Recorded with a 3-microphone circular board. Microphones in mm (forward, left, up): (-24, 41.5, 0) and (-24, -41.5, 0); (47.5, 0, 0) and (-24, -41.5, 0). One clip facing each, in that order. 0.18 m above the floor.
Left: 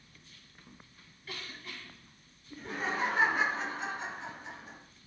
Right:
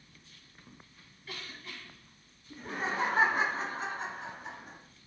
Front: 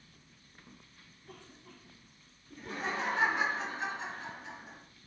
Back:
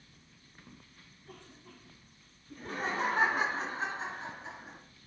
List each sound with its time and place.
2.5 s laughter: 140° right, 1.9 m; by 4.8 s 100° right, 2.5 m